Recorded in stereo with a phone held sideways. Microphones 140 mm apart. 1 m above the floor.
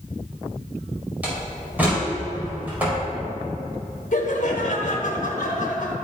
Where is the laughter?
65° left (ahead or behind), 1.5 m.